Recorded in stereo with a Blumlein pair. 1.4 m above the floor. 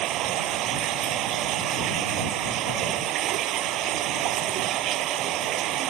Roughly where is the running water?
Ahead right.